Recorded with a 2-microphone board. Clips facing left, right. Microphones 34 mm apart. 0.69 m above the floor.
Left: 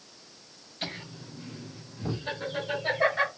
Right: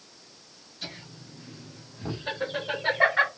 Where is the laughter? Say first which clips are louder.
Left 4 dB; 50° left (ahead or behind), 1.5 m; by 3.3 s 45° right (ahead or behind), 2 m.